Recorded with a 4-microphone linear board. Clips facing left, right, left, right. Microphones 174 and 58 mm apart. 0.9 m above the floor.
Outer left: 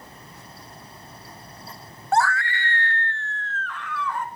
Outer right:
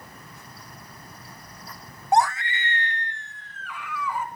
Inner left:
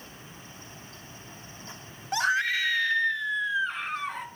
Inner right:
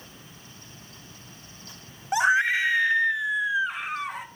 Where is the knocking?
No knocking in this recording.